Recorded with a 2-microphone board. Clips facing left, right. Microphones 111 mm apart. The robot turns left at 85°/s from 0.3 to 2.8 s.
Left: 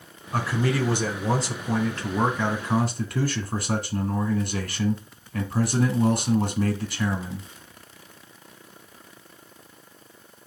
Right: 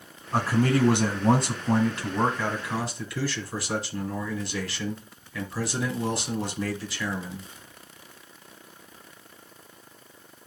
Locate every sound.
0.3 s a man speaking: 30° right, 2 m; by 7.5 s 120° left, 2 m